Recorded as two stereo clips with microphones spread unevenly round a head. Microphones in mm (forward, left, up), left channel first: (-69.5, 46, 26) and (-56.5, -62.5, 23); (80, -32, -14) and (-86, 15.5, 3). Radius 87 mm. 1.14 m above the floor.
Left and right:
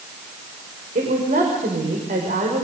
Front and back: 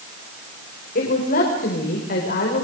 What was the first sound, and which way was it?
A woman speaking, 55° right.